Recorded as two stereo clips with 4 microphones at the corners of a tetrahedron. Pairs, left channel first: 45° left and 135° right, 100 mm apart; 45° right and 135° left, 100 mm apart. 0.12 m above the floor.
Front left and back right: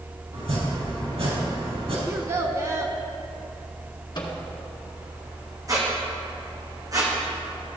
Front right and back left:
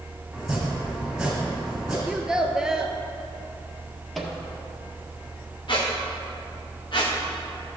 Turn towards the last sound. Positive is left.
turn(degrees=-80)